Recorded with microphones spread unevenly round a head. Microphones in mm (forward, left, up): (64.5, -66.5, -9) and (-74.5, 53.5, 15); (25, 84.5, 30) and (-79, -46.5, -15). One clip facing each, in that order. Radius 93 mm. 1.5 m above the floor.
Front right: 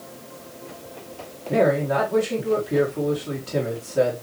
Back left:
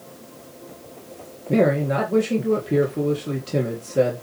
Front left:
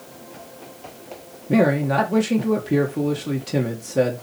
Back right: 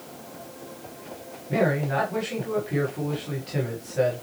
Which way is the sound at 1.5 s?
80° left.